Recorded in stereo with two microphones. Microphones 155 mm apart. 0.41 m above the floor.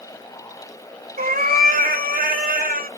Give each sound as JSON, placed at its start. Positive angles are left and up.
{"t": 1.2, "sound": "a cat meowing", "side_deg": -70, "distance_m": 0.9}